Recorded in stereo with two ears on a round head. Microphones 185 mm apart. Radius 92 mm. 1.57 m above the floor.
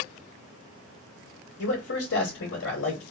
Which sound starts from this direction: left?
A man speaking, at 1.6 s.